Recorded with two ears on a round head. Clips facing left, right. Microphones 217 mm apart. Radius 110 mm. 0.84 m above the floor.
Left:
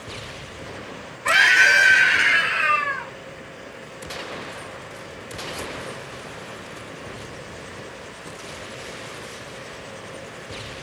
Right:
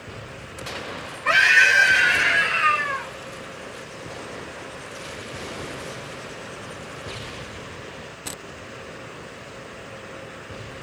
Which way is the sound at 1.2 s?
65° left (ahead or behind).